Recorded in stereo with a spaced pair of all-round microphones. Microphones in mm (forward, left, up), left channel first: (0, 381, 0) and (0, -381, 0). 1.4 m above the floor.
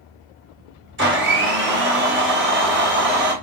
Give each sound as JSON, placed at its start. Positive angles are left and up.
{"t": 1.0, "sound": "a blender", "side_deg": -15, "distance_m": 0.8}